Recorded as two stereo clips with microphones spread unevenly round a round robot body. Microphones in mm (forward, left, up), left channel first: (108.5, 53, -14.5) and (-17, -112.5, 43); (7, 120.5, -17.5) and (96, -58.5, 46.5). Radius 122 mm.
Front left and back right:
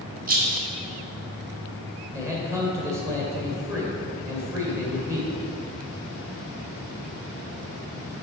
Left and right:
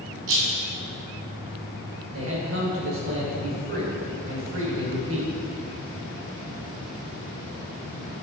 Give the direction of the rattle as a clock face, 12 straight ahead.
3 o'clock.